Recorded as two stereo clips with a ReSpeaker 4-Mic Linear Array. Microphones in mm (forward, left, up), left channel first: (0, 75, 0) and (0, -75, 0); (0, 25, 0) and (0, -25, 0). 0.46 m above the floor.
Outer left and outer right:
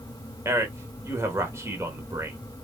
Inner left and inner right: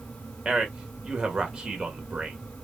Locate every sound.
0.5 s a man speaking: 20° right (ahead or behind), 1.2 m